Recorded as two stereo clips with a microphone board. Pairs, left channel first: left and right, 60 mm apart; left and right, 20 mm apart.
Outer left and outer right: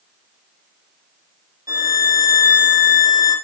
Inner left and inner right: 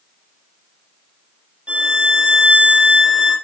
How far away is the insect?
No insect in this recording.